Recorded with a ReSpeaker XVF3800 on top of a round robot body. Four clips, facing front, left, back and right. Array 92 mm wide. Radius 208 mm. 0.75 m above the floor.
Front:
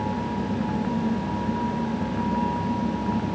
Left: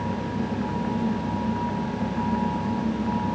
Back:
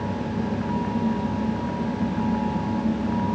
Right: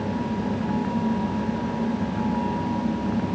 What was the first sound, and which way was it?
Only background noise.